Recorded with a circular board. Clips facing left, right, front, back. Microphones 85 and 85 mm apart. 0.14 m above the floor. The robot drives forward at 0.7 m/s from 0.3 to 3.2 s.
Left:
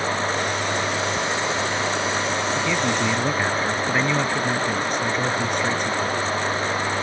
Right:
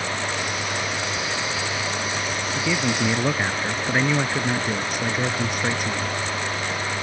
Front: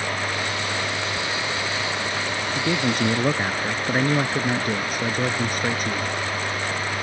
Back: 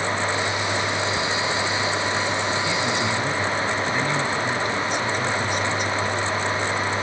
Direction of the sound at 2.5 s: 10° right.